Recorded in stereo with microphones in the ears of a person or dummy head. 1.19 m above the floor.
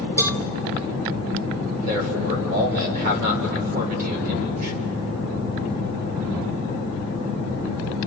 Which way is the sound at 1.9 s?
50° right (ahead or behind).